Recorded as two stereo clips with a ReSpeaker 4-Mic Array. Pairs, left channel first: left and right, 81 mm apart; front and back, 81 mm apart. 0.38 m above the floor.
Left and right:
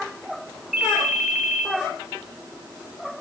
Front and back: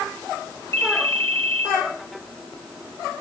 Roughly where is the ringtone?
Behind.